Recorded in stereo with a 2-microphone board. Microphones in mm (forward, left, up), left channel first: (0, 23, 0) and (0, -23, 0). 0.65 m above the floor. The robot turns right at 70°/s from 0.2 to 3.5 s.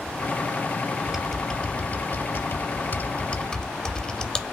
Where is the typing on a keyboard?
10° right (ahead or behind), 0.6 m; by 4.4 s 20° left (ahead or behind), 0.6 m.